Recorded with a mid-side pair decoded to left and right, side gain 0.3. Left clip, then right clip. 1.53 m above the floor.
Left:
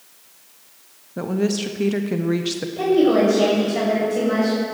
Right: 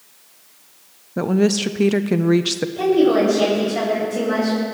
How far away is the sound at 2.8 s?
About 6.5 m.